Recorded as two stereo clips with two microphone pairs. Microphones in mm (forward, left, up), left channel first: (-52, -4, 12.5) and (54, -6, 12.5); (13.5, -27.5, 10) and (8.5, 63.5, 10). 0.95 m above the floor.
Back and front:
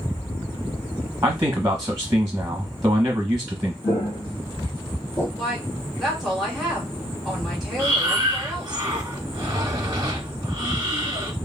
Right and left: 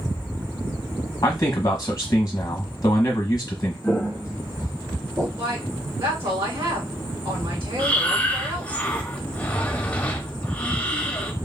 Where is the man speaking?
50° right, 0.8 m.